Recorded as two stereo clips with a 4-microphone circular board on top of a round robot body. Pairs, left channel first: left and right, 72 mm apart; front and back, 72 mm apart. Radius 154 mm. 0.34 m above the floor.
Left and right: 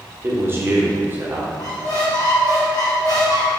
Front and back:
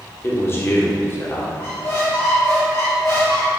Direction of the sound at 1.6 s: 55° left.